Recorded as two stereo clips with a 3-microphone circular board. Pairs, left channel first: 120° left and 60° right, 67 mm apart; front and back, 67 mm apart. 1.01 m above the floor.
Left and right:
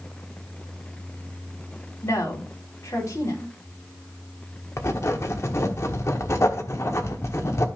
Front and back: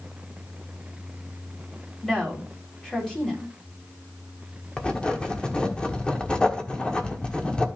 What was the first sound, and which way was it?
A woman speaking, 80° left.